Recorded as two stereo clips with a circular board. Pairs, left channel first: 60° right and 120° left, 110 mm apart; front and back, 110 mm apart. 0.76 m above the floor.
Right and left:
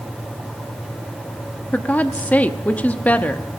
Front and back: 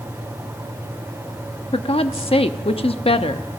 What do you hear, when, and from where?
1.7 s a woman speaking: 15° left, 0.8 m